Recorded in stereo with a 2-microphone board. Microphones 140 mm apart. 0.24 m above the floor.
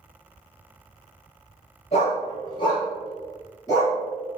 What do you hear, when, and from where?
1.9 s a dog barking: 45° left (ahead or behind), 1.8 m; by 4.0 s 20° left (ahead or behind), 2.5 m